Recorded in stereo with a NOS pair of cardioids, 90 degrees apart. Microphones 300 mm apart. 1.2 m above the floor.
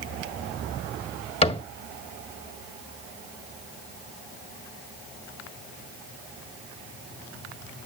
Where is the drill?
I don't hear a drill.